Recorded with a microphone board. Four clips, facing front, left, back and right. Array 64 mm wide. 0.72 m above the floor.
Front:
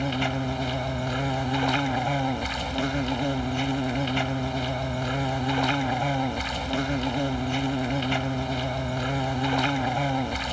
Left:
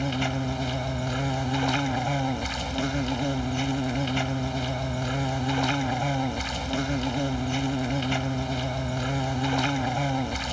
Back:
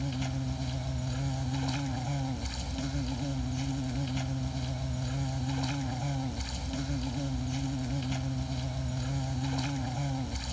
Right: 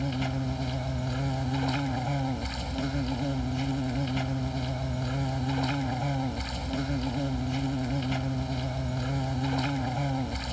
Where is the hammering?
No hammering in this recording.